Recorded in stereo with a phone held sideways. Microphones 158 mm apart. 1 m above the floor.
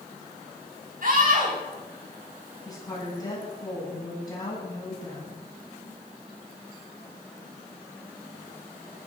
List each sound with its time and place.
1.0 s a scream: 60° right (ahead or behind), 9 m
2.6 s a woman speaking: 25° left (ahead or behind), 9 m